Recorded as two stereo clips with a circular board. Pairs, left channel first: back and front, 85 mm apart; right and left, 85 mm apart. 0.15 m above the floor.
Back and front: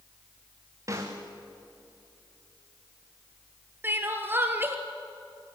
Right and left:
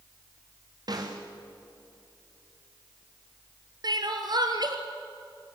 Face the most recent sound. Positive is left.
turn(degrees=65)